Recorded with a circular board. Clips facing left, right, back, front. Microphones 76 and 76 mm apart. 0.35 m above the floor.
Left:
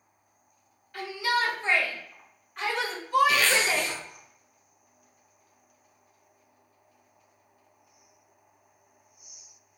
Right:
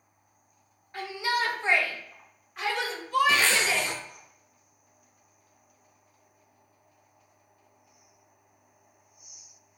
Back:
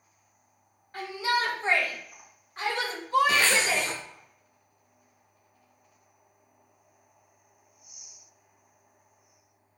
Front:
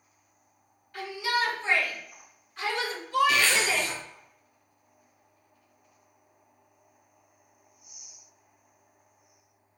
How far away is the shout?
About 1.8 m.